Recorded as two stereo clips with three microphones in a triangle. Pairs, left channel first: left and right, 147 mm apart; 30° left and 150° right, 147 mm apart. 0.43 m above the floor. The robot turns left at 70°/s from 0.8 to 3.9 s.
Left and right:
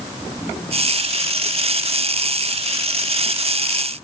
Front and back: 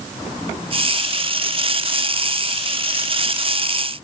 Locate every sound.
Only background noise.